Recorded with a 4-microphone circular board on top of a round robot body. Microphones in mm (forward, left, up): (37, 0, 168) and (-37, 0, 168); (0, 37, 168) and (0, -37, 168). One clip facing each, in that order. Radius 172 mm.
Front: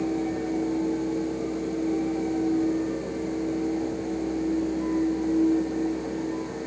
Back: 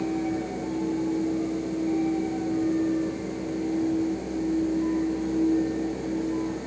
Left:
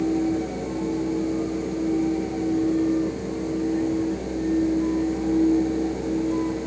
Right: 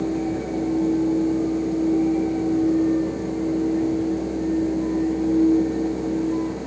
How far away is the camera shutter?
No camera shutter in this recording.